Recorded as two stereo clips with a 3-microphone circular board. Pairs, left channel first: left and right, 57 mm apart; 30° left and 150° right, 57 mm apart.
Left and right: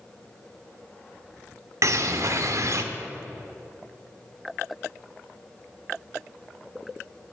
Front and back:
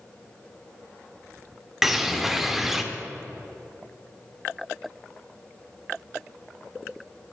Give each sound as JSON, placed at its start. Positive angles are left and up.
{"t": 1.8, "sound": "a bird", "azimuth_deg": -65, "distance_m": 0.7}